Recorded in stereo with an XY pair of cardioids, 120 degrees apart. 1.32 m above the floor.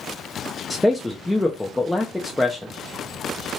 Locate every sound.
0.7 s a man speaking: 5° left, 0.5 m